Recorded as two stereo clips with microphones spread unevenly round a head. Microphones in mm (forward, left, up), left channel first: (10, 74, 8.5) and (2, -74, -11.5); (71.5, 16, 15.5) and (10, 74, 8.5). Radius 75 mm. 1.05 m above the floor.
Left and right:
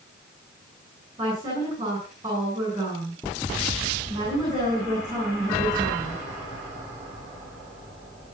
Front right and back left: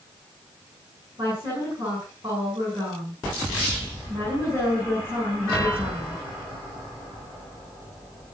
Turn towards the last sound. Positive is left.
turn(degrees=-165)